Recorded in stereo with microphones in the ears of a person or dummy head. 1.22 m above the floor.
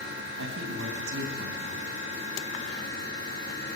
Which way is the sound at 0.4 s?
70° right (ahead or behind).